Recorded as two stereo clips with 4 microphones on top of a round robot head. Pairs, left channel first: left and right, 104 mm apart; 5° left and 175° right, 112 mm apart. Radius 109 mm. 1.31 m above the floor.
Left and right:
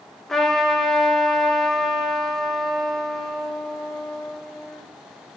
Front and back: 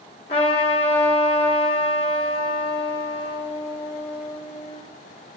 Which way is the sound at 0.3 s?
5° left.